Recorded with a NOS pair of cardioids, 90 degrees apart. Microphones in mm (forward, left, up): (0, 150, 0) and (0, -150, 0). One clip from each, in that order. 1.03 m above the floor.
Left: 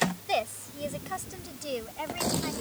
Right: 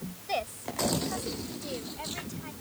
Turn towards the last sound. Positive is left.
turn(degrees=50)